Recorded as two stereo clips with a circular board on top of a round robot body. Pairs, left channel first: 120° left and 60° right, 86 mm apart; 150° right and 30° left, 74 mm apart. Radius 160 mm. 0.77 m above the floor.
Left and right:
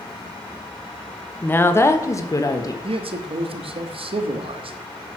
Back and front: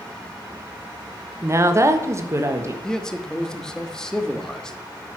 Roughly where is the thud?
No thud in this recording.